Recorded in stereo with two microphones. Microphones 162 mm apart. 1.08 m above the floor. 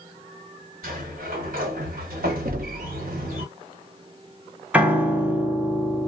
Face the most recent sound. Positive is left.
turn(degrees=-10)  # may be behind; listen again after turning